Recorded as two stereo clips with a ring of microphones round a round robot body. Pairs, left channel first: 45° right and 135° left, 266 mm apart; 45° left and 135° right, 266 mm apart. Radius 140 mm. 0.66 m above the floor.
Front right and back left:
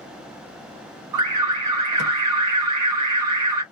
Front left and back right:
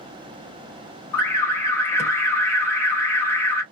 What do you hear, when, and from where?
1.1 s an alarm: 125° left, 2.5 m